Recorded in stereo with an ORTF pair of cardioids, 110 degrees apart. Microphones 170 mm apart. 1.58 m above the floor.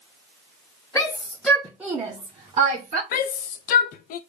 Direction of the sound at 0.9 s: 15° left.